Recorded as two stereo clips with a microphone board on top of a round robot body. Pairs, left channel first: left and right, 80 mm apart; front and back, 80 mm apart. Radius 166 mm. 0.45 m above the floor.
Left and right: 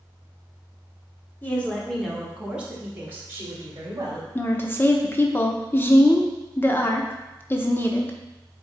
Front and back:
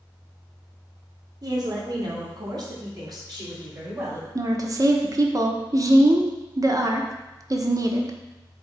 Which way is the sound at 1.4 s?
155° left.